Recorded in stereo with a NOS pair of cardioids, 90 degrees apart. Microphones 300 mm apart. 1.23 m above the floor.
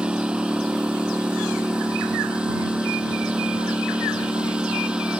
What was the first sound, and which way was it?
A lawn mower, 5° right.